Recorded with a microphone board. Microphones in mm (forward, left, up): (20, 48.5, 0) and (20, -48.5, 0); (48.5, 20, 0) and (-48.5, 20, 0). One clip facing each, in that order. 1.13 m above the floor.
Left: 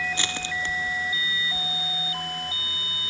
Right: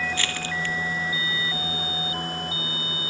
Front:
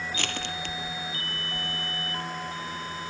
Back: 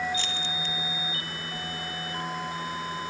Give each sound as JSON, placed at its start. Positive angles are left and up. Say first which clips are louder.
{"t": 0.1, "sound": "crushing", "louder": "right 1 dB, even", "azimuth_deg": 20}